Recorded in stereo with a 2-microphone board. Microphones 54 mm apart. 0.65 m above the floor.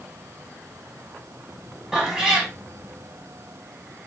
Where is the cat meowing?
10° right (ahead or behind), 1.1 m.